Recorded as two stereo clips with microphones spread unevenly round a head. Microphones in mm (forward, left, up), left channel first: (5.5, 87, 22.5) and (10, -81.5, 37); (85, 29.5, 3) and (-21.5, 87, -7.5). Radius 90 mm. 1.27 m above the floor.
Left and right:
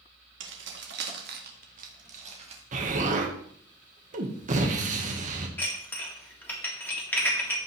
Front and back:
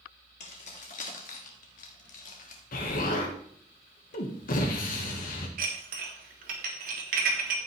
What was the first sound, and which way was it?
Keys jangling, 75° right.